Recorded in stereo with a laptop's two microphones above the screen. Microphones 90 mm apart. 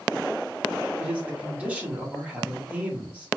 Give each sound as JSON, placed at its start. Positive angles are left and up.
{"t": 1.0, "sound": "a man speaking", "side_deg": -15, "distance_m": 1.1}